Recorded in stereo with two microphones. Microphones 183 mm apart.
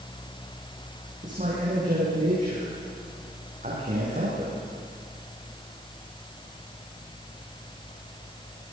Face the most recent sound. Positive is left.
turn(degrees=-45)  # may be behind; listen again after turning